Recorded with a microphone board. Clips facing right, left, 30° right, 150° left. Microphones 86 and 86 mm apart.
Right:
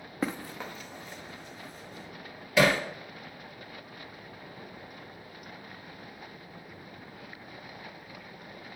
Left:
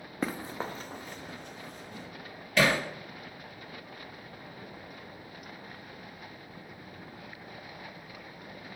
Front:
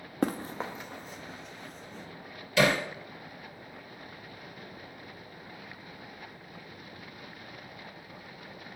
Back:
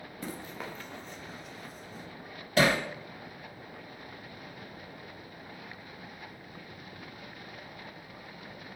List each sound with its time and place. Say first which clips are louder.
0.2 s running footsteps: even, front 10 dB; 5° right, 0.5 m; by 2.1 s 70° left, 1.9 m
2.6 s hammering: right 2 dB, even; 175° right, 2 m